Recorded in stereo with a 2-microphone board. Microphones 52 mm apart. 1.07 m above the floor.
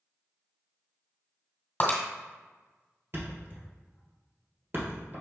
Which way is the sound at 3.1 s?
50° right (ahead or behind).